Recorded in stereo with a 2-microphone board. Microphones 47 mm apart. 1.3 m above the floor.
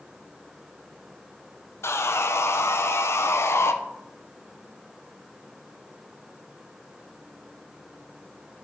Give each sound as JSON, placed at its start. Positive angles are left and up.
{"t": 1.8, "sound": "sawing", "side_deg": 65, "distance_m": 0.6}